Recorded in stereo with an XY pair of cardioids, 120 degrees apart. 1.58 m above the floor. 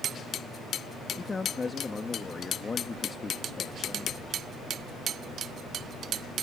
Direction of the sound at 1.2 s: 25° left.